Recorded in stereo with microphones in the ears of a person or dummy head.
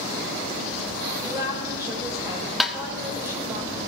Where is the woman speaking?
15° right (ahead or behind), 5.5 m.